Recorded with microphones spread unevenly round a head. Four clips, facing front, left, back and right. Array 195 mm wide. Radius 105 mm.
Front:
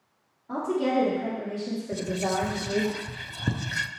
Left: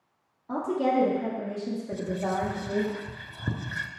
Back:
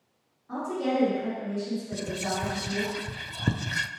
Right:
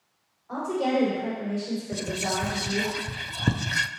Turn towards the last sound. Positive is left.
turn(degrees=-75)